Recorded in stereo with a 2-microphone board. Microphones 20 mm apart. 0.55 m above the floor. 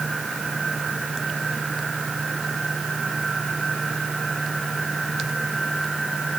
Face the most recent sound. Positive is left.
No sound to turn to.